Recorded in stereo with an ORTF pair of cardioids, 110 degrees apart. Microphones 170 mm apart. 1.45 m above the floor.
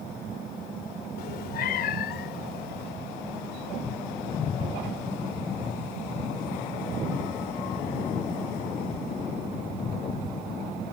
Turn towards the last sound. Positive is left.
turn(degrees=70)